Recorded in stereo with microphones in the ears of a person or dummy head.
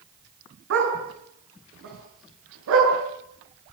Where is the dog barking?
80° right, 8.5 m; by 2.9 s 85° right, 11.5 m.